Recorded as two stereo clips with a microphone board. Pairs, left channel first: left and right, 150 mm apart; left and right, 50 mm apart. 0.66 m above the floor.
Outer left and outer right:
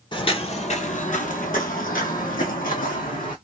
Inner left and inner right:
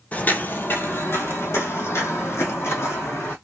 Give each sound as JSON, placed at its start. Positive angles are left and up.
{"t": 0.1, "sound": "footsteps", "side_deg": 35, "distance_m": 0.8}